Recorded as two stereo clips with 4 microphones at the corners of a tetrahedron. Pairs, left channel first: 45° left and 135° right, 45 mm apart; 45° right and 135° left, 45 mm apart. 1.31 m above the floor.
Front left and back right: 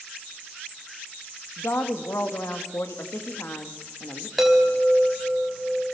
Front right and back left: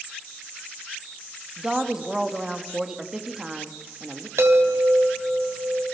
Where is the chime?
135° left, 4 m.